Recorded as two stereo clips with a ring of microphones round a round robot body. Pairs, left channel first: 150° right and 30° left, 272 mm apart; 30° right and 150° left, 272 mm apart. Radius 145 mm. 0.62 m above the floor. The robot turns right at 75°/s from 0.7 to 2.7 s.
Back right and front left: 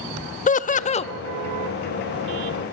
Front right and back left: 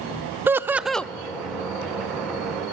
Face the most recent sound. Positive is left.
turn(degrees=15)